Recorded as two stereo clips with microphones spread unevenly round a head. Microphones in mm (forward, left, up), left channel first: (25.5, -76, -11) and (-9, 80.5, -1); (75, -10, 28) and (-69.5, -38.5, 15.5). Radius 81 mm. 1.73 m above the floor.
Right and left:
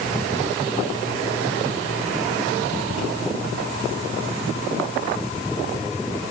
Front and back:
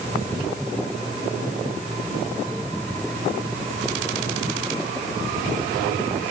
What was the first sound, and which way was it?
Only background noise.